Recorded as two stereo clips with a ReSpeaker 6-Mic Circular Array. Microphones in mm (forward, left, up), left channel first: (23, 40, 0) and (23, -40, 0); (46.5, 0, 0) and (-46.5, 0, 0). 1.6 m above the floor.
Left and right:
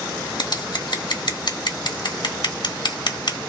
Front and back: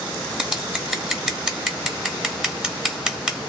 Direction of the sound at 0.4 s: 100° left.